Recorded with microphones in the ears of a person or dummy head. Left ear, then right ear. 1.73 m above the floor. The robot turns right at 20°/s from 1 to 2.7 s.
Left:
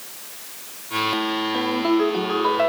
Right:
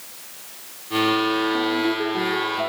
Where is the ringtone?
30° left (ahead or behind), 2.5 m; by 2.7 s 50° left (ahead or behind), 2.5 m.